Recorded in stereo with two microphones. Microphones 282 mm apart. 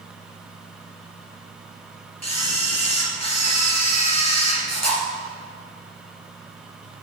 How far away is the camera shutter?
About 2.5 m.